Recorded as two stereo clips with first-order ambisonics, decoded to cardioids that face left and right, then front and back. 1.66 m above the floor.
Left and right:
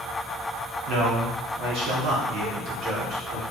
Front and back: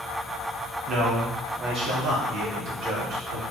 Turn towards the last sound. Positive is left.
turn(degrees=-135)